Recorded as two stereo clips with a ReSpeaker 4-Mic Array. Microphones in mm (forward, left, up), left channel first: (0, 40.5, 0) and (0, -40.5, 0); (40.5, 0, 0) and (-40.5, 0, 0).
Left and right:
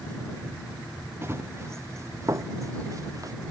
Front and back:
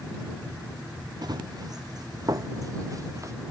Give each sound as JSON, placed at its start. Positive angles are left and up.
{"t": 1.2, "sound": "running footsteps", "azimuth_deg": -150}